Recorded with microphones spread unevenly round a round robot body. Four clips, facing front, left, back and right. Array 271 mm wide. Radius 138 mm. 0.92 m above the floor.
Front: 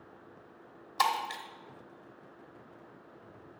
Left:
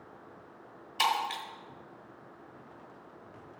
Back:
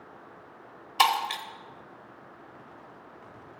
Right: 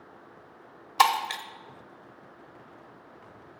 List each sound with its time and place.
1.0 s breaking glass: 125° right, 1.2 m